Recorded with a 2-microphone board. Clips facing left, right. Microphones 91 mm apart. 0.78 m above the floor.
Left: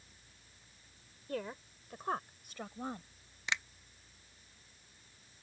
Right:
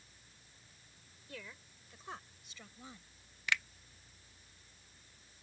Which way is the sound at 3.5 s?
20° left (ahead or behind).